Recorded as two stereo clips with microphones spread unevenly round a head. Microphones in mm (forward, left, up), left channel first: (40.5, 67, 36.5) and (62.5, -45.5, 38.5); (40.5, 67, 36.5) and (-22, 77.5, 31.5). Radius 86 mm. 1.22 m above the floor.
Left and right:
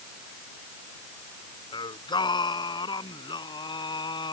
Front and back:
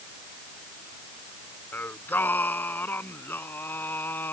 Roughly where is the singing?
Ahead left.